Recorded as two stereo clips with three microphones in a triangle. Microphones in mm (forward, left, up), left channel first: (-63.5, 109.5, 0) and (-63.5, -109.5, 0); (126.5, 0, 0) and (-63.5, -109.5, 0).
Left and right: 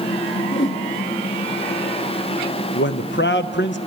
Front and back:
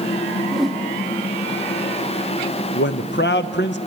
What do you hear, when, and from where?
0.5 s a whoosh: 120° left, 1.3 m
2.8 s a man speaking: 60° left, 0.6 m